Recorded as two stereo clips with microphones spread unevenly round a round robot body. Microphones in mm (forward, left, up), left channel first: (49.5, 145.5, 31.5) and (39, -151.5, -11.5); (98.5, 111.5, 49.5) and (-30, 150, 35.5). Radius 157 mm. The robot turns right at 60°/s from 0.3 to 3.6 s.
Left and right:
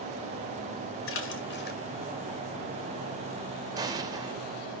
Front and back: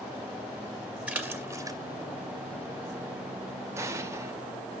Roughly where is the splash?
Left.